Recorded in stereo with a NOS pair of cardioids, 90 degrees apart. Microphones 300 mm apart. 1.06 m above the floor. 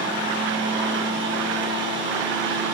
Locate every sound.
0.0 s a fan: 40° right, 1.1 m